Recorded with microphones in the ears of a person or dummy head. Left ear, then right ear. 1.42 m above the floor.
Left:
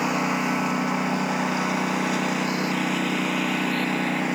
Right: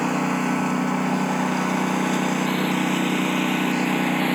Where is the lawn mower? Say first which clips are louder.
Right 1 dB; 25° left (ahead or behind); by 4.4 s 10° left (ahead or behind).